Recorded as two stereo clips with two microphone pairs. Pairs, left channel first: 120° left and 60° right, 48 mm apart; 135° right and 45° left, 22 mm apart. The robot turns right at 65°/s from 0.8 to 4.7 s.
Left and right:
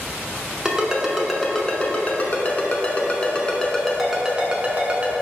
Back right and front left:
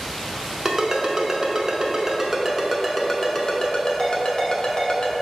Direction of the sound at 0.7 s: 10° left.